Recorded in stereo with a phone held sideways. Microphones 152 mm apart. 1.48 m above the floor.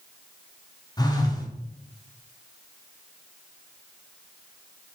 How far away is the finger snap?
I don't hear a finger snap.